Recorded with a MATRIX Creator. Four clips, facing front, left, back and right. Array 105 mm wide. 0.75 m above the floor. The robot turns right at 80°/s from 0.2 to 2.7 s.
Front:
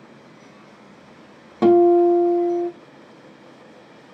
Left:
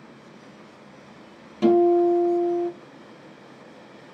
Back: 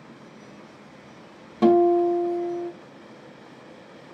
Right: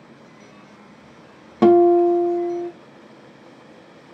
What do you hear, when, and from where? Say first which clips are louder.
1.6 s a guitar: right 4 dB, front 4 dB; 70° right, 0.6 m; by 2.7 s 15° left, 0.6 m